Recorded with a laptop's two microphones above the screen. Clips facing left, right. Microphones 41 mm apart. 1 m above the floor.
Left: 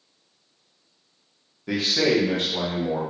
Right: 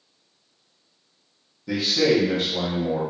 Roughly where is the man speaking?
Left.